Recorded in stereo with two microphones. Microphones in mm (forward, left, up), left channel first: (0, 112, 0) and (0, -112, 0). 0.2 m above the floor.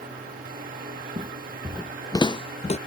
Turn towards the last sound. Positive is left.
turn(degrees=30)  # may be behind; listen again after turning